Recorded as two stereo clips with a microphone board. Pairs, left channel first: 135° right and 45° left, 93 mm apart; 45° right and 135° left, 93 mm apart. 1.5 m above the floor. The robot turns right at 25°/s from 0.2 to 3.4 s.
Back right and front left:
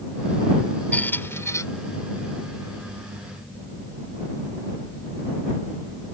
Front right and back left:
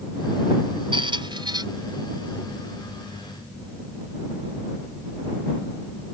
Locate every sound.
0.9 s a squeak: 155° left; by 1.6 s 170° left